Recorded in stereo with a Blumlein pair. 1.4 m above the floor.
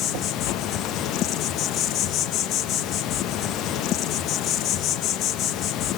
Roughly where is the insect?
Ahead left.